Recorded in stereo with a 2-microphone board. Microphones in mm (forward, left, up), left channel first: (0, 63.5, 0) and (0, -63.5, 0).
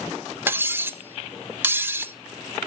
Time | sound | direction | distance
0.5 | cutlery clinking | 15° right (ahead or behind) | 0.6 m